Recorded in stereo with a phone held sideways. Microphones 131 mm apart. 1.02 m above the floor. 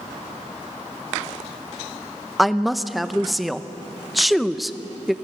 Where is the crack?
No crack in this recording.